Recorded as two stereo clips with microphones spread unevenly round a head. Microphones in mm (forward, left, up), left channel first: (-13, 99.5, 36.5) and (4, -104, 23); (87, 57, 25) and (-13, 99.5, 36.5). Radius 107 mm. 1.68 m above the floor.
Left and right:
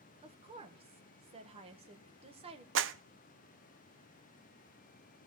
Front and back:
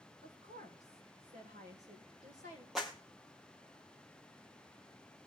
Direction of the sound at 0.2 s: 150° right.